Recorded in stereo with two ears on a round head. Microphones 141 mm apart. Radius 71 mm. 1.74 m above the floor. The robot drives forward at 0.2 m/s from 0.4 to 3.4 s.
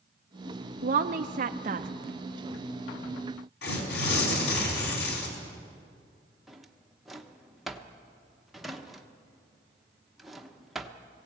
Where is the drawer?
Centre (ahead or behind), 1.0 m.